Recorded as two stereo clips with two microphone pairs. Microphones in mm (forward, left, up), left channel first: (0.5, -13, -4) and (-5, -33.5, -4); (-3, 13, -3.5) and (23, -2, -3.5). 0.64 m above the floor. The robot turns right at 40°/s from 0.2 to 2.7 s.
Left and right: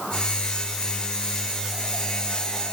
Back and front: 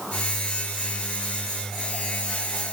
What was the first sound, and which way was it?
Only background noise.